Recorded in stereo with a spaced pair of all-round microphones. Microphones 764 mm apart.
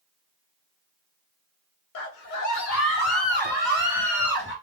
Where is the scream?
80° left, 1.1 m; by 4.5 s 15° left (ahead or behind), 2 m.